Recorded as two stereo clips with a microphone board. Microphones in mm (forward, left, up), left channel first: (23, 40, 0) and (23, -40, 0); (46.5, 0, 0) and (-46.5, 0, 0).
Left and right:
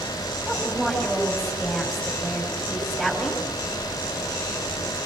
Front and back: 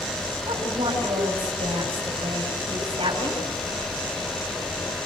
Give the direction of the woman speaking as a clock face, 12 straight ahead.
6 o'clock.